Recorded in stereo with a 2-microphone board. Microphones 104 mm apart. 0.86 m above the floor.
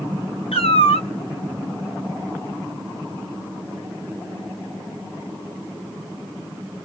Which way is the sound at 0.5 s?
80° left.